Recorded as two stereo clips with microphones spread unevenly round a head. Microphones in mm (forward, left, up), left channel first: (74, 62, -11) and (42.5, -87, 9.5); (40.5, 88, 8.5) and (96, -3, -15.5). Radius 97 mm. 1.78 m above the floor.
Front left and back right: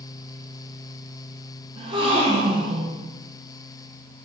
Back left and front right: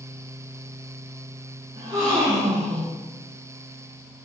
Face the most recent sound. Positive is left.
turn(degrees=-125)